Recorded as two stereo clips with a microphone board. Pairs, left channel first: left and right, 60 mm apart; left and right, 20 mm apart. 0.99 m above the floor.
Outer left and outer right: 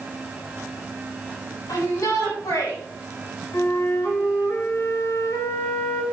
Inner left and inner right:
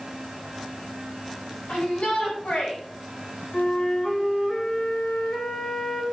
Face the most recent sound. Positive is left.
turn(degrees=65)  # may be behind; listen again after turning